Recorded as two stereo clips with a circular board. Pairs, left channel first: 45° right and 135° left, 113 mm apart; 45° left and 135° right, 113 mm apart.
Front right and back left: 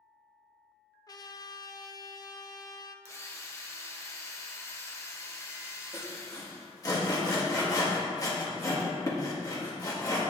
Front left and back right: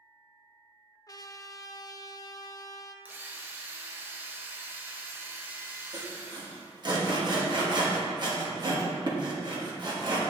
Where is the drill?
85° right, 1.0 m.